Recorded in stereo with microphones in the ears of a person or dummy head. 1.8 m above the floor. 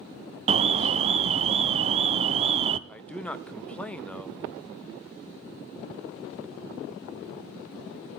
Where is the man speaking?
10° left (ahead or behind), 0.8 m.